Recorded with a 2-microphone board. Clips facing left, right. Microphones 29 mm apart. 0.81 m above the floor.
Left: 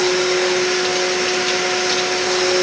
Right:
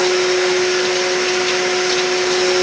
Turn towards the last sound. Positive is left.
No sound to turn to.